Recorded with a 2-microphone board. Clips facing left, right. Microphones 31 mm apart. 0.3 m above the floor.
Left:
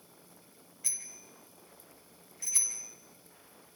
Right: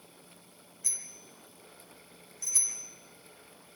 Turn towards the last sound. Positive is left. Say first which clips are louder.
# right 1 dB
turn(degrees=20)  # may be behind; listen again after turning